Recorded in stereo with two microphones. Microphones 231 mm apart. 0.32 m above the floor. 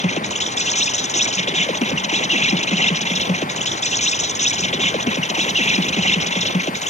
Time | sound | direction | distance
0.0 | an insect | 30° left (ahead or behind) | ?